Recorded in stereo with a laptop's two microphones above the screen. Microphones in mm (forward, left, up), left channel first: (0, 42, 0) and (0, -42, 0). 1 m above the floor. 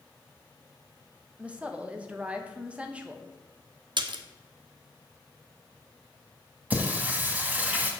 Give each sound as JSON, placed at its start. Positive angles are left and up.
{"t": 1.4, "sound": "a woman speaking", "side_deg": -15, "distance_m": 1.0}
{"t": 4.0, "sound": "a splash", "side_deg": -65, "distance_m": 0.8}
{"t": 6.7, "sound": "singing", "side_deg": -15, "distance_m": 1.7}